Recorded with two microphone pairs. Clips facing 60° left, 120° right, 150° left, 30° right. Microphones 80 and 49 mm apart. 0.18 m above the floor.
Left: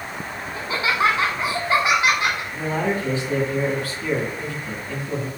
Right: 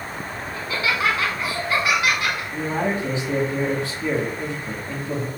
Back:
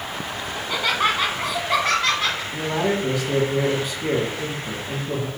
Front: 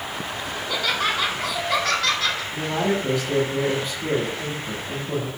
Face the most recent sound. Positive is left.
turn(degrees=170)